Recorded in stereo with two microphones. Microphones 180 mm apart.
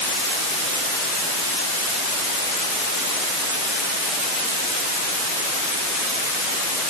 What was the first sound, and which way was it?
Only background noise.